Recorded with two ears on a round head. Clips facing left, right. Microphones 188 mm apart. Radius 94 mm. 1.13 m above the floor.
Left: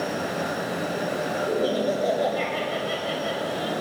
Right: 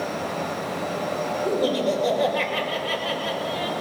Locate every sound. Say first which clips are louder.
1.4 s laughter: right 2 dB; 85° right, 5.5 m; by 3.7 s 75° right (ahead or behind), 5.5 m